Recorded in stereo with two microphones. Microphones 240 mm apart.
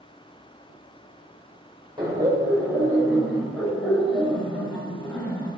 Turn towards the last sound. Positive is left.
turn(degrees=10)  # may be behind; listen again after turning